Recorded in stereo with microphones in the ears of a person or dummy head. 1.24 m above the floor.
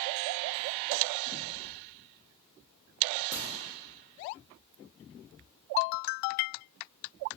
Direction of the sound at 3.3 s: 45° right (ahead or behind).